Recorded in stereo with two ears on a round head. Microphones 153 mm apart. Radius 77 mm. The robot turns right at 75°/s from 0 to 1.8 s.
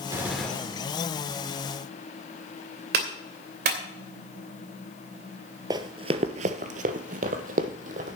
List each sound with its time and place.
0.1 s a gunshot: 25° right, 2 m; by 0.8 s 30° left, 2 m
2.9 s a clap: 65° right (ahead or behind), 2.5 m
5.7 s running footsteps: 25° right (ahead or behind), 0.9 m; by 8.2 s 50° right (ahead or behind), 1.7 m